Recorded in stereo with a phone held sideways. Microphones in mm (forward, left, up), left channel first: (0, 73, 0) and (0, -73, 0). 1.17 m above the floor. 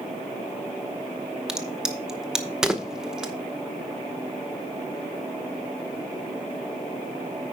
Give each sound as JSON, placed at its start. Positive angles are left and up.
{"t": 1.5, "sound": "a crack", "side_deg": -5, "distance_m": 0.8}